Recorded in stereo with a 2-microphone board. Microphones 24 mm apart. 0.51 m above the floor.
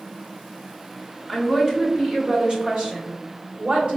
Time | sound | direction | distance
1.3 | a woman speaking | 15° right (ahead or behind) | 0.9 m